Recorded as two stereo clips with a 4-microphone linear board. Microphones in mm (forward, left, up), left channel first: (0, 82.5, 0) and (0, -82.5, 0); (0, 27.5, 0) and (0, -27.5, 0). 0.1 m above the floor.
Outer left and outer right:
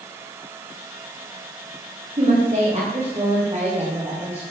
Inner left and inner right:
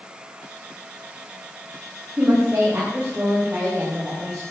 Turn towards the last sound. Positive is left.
turn(degrees=-15)  # may be behind; listen again after turning